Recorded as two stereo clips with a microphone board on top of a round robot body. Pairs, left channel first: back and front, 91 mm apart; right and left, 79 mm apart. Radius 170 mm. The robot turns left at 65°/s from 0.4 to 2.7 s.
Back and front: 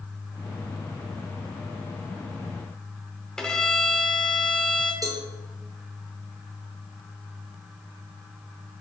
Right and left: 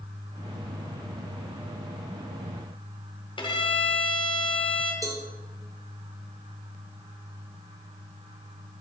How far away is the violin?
About 1.3 m.